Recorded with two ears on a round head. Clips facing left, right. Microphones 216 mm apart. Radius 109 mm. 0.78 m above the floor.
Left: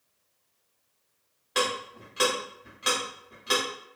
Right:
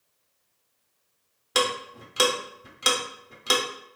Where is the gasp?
No gasp in this recording.